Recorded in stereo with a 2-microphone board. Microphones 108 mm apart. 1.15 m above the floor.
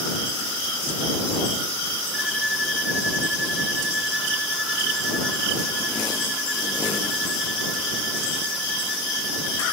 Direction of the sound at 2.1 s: 5° right (ahead or behind).